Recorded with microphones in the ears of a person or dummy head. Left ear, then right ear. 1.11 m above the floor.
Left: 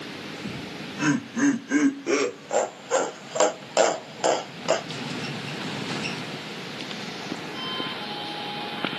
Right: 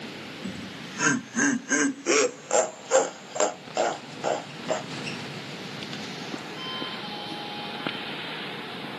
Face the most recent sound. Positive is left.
turn(degrees=40)  # may be behind; listen again after turning